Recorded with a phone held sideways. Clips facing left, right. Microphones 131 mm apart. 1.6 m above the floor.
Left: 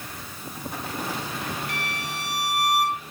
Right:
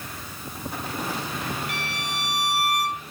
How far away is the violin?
About 6.5 m.